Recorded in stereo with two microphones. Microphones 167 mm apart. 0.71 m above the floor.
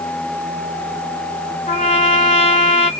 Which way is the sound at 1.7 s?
40° left (ahead or behind).